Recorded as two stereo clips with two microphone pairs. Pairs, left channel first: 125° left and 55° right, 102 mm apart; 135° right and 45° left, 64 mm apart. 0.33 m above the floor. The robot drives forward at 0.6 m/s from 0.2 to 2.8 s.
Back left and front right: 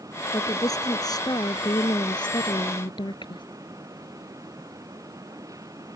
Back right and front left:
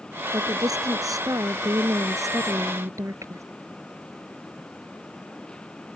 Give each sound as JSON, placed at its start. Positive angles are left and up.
{"t": 0.3, "sound": "a woman speaking", "azimuth_deg": 70}